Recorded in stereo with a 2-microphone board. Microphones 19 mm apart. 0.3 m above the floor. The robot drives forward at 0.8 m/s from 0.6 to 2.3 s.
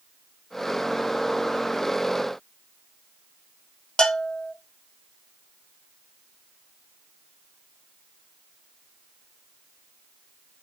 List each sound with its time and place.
4.0 s a bell: 50° left (ahead or behind), 0.7 m